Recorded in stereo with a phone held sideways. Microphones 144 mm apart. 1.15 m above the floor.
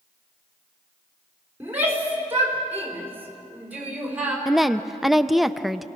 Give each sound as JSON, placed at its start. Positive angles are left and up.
{"t": 1.6, "sound": "a shout", "side_deg": -15, "distance_m": 4.0}
{"t": 4.5, "sound": "a woman speaking", "side_deg": 0, "distance_m": 0.5}